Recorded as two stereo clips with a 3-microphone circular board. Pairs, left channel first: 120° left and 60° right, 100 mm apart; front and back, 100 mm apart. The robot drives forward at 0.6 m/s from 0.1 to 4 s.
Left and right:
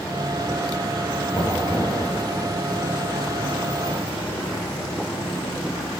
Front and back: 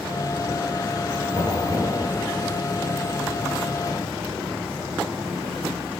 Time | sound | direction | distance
1.3 | knocking | 175° right | 3 m